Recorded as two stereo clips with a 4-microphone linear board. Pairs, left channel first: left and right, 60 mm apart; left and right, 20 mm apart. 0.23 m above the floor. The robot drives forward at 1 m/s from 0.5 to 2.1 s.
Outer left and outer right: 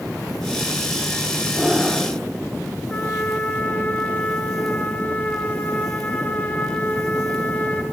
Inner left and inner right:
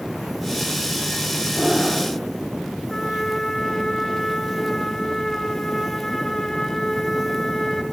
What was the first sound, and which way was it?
Breathing, 10° right (ahead or behind).